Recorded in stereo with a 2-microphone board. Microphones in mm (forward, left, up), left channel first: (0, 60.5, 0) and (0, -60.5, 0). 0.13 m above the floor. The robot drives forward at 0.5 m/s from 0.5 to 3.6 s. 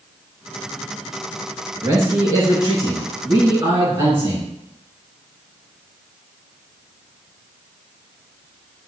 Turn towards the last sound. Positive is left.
turn(degrees=-25)  # may be behind; listen again after turning